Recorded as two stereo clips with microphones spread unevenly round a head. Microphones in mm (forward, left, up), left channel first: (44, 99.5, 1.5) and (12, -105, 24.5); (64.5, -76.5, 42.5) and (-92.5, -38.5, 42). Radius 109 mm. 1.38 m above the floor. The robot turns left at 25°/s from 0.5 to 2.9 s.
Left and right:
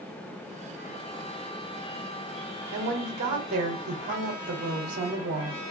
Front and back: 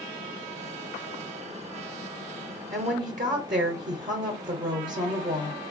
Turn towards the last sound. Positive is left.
turn(degrees=-150)